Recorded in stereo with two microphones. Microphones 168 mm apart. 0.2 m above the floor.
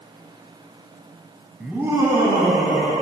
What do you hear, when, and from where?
1.6 s laughter: 5° right (ahead or behind), 1.4 m; by 2.9 s 30° right (ahead or behind), 3 m